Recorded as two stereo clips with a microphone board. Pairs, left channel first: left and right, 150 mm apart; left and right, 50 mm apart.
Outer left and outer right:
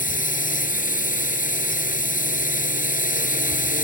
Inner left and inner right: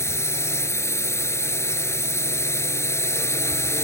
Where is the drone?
65° left (ahead or behind).